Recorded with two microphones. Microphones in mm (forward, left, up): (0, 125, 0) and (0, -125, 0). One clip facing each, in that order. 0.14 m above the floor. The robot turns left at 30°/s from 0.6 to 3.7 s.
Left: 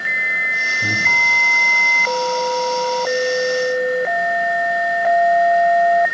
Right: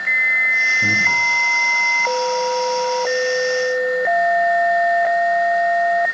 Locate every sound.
0.8 s breathing: 10° right (ahead or behind), 3 m; by 1.2 s centre (ahead or behind), 3 m